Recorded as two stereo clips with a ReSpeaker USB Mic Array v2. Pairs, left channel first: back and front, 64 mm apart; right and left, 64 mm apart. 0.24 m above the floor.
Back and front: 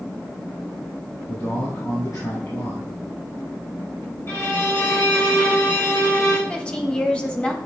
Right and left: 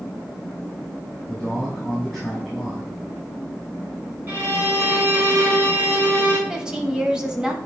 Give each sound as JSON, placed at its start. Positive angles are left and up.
{"t": 1.3, "sound": "a man speaking", "azimuth_deg": 180, "distance_m": 3.0}
{"t": 4.3, "sound": "a violin", "azimuth_deg": 140, "distance_m": 2.0}
{"t": 6.5, "sound": "a woman speaking", "azimuth_deg": 145, "distance_m": 1.1}